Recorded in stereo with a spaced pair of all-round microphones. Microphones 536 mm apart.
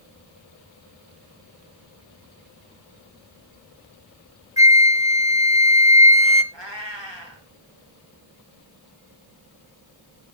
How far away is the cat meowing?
About 5.5 m.